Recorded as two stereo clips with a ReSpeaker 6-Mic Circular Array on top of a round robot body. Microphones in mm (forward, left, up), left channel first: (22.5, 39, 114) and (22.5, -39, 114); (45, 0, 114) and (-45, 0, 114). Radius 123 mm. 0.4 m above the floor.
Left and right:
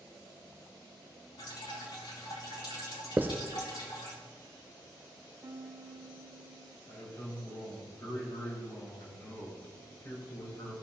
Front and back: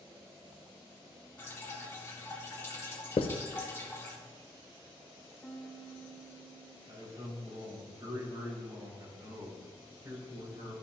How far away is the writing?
About 0.6 m.